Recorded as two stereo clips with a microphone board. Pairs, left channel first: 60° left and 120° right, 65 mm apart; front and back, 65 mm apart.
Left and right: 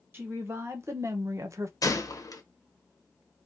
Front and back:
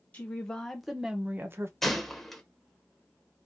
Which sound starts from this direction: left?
A gunshot, at 1.8 s.